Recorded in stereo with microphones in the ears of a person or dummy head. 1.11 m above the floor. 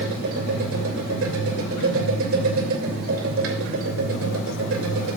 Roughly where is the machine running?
Right.